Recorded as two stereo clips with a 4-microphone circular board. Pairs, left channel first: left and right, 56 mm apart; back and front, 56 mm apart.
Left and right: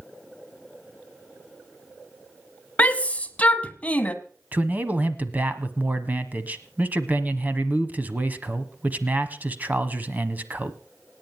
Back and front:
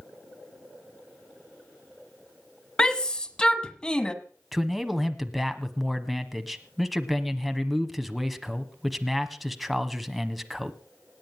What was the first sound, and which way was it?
A shout, 120° left.